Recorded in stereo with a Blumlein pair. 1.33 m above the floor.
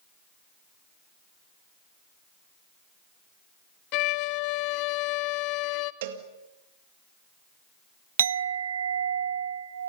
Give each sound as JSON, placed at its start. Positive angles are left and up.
{"t": 3.9, "sound": "a violin", "azimuth_deg": 40, "distance_m": 0.8}
{"t": 6.0, "sound": "a cowbell", "azimuth_deg": -55, "distance_m": 2.0}
{"t": 8.2, "sound": "a clink", "azimuth_deg": -65, "distance_m": 0.5}